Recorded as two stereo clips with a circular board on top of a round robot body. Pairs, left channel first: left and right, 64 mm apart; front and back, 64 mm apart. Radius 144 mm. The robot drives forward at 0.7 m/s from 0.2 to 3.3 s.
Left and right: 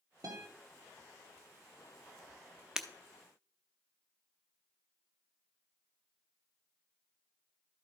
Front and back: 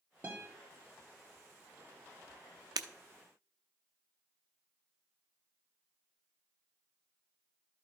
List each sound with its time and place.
0.2 s a guitar: 115° right, 1.5 m; by 0.5 s 120° right, 1.6 m
2.8 s breaking glass: 170° right, 0.6 m